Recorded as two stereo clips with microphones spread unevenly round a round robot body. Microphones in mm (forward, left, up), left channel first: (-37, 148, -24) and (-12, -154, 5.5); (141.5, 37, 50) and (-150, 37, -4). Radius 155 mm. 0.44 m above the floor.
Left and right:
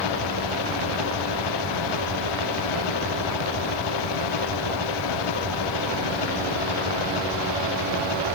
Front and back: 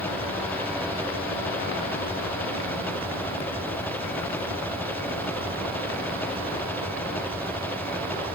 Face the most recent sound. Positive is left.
turn(degrees=85)